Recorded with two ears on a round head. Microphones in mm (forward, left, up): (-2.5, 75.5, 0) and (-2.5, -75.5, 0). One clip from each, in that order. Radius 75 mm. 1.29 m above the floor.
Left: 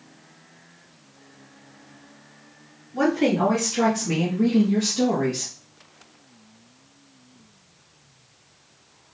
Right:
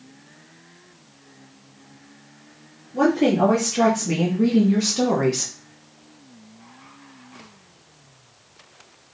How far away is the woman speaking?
About 2 m.